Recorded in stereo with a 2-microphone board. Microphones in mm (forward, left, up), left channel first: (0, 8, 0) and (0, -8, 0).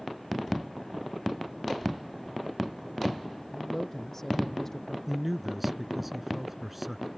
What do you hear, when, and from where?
3.5 s a man speaking: 10° left (ahead or behind); by 5.0 s 25° left (ahead or behind)
5.1 s a man speaking: 5° right (ahead or behind)